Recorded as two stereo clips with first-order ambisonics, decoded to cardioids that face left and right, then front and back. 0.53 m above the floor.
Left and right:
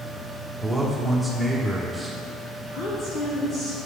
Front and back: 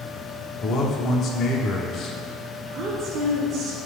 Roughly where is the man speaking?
Ahead.